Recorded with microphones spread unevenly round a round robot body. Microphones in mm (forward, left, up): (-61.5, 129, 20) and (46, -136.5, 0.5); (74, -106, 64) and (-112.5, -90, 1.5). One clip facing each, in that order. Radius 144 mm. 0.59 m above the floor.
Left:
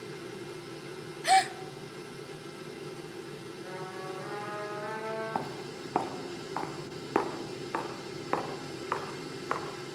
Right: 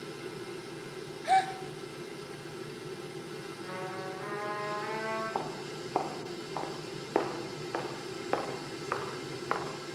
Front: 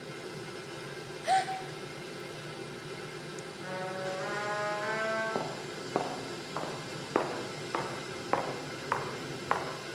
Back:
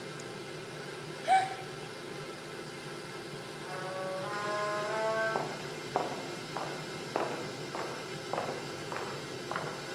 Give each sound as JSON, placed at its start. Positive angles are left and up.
{"t": 1.2, "sound": "a gasp", "azimuth_deg": 70, "distance_m": 1.1}
{"t": 3.6, "sound": "a trumpet", "azimuth_deg": 10, "distance_m": 8.5}
{"t": 5.3, "sound": "footsteps", "azimuth_deg": 65, "distance_m": 3.5}